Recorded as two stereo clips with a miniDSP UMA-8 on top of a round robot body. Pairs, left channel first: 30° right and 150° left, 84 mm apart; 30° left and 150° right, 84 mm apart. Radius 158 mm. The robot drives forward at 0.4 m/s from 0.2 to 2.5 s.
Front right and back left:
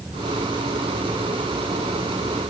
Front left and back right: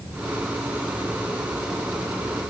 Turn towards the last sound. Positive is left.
No sound to turn to.